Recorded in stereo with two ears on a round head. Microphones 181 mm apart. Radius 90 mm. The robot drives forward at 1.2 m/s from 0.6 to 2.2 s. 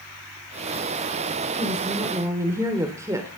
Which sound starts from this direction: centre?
A woman speaking, at 1.6 s.